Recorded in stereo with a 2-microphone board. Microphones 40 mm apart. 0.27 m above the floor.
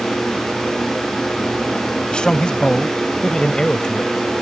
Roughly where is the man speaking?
Left.